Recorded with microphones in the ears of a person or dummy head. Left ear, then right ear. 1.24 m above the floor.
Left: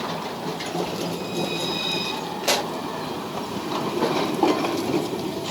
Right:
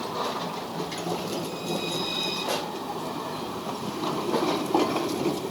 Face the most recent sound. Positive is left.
turn(degrees=75)  # may be behind; listen again after turning